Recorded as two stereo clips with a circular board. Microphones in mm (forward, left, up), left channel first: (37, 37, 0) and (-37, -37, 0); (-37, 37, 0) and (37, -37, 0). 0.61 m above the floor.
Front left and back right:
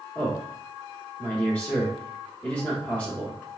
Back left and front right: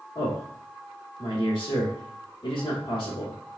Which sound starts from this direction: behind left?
A man speaking, at 0.1 s.